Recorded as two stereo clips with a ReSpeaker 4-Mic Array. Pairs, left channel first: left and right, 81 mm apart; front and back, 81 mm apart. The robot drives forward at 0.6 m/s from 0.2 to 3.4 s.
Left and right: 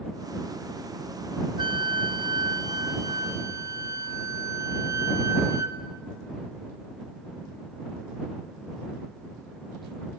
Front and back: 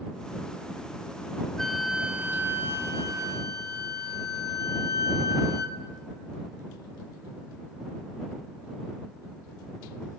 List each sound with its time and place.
1.6 s a flute: 85° right, 0.9 m; by 5.8 s 140° right, 1.3 m